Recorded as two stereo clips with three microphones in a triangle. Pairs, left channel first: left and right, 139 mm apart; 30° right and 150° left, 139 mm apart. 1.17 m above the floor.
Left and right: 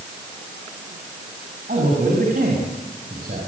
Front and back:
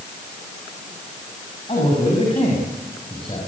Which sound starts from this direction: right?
A man speaking, at 1.7 s.